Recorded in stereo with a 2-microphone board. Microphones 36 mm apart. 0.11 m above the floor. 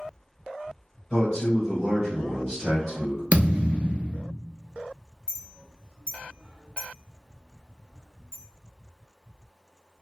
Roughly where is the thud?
Right.